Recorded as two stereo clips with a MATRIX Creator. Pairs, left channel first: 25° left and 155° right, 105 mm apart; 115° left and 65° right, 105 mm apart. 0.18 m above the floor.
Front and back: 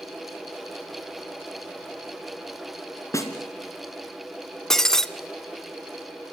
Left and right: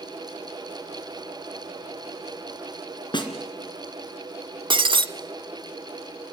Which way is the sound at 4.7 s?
65° right.